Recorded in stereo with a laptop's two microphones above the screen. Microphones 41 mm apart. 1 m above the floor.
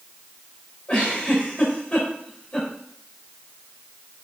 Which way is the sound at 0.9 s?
30° left (ahead or behind).